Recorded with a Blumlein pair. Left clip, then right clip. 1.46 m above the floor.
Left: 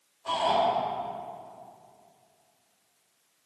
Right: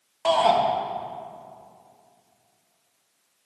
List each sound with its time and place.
0.2 s a shout: 50° right, 2.5 m